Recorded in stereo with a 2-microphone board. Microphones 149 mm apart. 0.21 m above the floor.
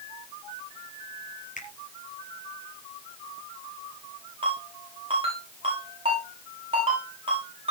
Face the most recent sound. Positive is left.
turn(degrees=-40)  # may be behind; listen again after turning